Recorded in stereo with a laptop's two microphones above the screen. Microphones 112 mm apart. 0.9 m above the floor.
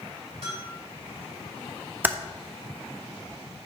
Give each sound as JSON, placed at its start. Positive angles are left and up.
{"t": 0.4, "sound": "a bell", "side_deg": -70, "distance_m": 3.5}
{"t": 2.0, "sound": "typing on a keyboard", "side_deg": -15, "distance_m": 0.6}